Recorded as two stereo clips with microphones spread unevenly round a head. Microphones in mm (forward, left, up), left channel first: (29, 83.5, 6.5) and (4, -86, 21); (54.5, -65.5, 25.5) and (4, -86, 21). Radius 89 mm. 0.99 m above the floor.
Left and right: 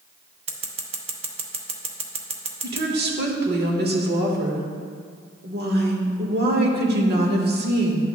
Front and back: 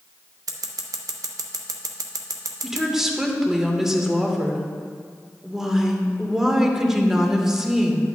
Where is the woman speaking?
80° right, 1.3 m.